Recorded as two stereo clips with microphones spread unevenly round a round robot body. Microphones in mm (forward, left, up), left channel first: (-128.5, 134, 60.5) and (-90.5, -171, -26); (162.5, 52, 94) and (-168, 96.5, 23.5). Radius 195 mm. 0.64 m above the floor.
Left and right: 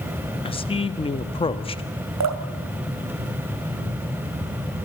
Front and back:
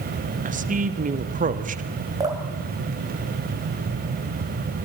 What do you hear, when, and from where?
0.5 s a man speaking: straight behind, 1.1 m
2.2 s dripping: 110° right, 2.5 m